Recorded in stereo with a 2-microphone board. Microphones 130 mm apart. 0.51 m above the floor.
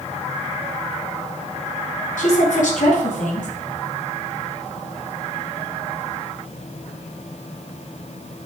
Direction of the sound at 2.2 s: 80° left.